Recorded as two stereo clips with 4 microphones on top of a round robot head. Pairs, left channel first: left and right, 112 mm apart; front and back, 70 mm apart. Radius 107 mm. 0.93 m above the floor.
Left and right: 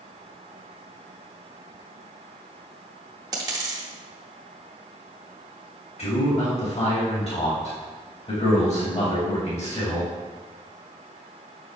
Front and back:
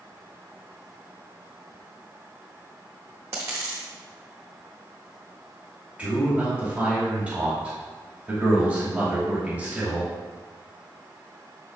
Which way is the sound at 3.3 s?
120° right.